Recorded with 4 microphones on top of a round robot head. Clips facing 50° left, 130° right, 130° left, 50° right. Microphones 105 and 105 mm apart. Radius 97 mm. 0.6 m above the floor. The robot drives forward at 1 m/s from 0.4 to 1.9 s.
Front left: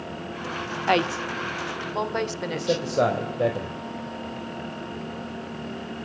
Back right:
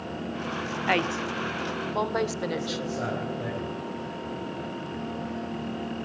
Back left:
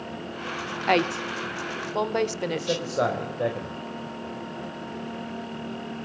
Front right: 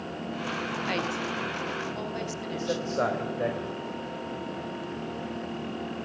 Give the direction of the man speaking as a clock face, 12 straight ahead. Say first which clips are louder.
Front left 7 dB, front right 1 dB; 10 o'clock.